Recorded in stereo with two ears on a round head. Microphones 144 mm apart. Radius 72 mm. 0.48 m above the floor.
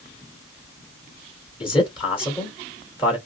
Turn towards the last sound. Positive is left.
turn(degrees=35)  # may be behind; listen again after turning